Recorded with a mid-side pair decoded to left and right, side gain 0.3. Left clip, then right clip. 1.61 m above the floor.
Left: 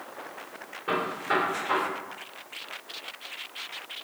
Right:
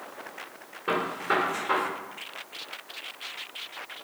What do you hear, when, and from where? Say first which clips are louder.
0.9 s a gunshot: right 1 dB; 45° right, 1.6 m